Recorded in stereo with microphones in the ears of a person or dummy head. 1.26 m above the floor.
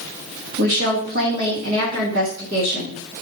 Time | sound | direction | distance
0.6 | a woman speaking | 80° right | 1.0 m